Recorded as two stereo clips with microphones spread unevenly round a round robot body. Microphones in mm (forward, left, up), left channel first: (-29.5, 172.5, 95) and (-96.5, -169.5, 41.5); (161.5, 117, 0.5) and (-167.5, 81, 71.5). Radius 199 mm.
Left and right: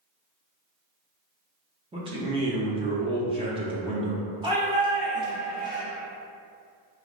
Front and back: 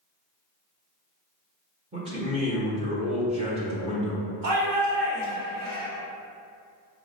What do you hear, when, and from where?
1.9 s a man speaking: 100° right, 1.0 m
4.4 s a shout: 170° right, 1.7 m